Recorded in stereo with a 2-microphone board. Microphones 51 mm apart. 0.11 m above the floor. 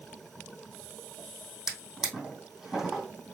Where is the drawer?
10° right (ahead or behind), 2.5 m.